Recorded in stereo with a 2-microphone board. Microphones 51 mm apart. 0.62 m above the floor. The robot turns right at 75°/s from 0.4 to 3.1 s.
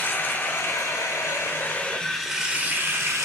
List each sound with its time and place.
0.0 s running water: 40° left, 1.0 m; by 3.3 s 115° right, 1.0 m